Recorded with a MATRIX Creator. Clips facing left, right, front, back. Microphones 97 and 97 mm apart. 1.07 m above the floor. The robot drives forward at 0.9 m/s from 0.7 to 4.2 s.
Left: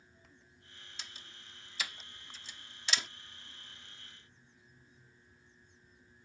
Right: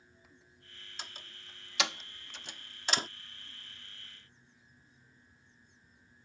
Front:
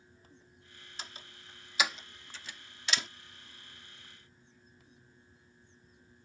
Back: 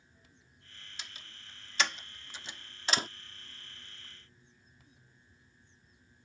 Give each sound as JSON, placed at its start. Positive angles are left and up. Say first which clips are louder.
{"t": 1.0, "sound": "a door slam", "louder": "right 5 dB, front 4 dB", "azimuth_deg": -45}